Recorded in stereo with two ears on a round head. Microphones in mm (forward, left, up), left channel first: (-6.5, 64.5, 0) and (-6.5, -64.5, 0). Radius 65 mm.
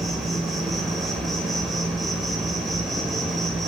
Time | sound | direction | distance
0.0 | an insect | centre (ahead or behind) | 1.2 m